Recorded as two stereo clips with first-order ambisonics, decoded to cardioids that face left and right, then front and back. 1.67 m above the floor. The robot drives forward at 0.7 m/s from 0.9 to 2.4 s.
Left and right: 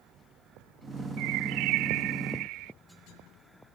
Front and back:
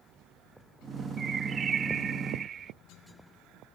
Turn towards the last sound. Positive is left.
turn(degrees=-115)